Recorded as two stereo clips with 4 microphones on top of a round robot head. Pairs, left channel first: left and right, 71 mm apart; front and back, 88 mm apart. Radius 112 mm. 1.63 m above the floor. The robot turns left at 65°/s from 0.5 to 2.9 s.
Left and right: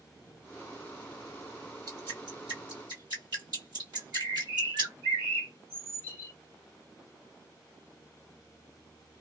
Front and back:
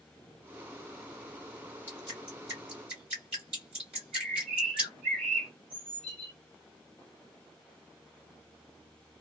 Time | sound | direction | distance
1.9 | dripping | 75° right | 1.9 m
3.9 | a bird | 85° right | 1.5 m